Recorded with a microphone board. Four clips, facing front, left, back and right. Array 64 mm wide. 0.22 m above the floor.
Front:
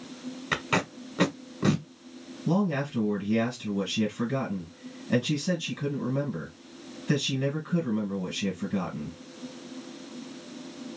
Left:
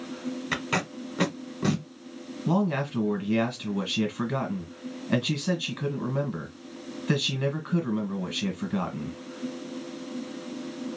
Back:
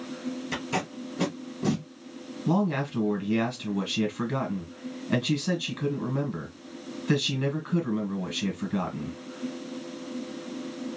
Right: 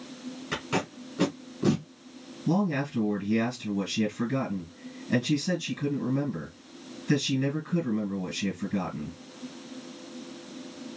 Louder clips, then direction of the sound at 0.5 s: Even, front 6 dB; 25° left.